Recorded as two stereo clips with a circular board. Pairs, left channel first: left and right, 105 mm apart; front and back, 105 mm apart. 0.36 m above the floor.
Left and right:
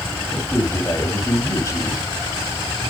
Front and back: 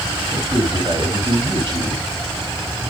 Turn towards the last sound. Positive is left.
turn(degrees=145)